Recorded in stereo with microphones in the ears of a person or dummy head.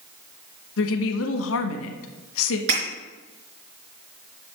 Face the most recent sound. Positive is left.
turn(degrees=-50)  # may be behind; listen again after turning